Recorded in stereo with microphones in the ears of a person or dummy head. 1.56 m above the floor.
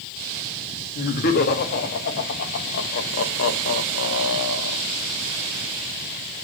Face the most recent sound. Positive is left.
turn(degrees=80)